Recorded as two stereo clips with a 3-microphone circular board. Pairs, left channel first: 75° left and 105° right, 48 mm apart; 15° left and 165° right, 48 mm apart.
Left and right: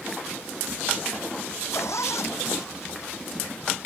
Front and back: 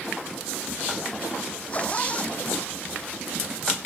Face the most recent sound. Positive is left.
turn(degrees=75)